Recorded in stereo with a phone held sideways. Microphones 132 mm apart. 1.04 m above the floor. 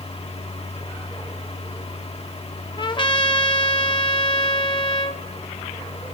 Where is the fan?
50° left (ahead or behind), 2 m.